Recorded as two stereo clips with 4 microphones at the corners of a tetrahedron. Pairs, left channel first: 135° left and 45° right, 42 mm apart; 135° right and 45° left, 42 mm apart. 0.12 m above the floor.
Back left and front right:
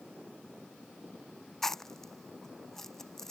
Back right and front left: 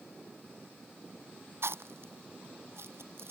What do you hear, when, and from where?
1.6 s chewing: 55° left